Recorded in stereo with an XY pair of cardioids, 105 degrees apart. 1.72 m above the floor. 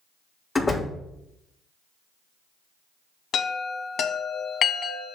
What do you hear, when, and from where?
0.6 s a door slam: 20° left, 1.7 m
3.3 s a chime: 60° left, 1.1 m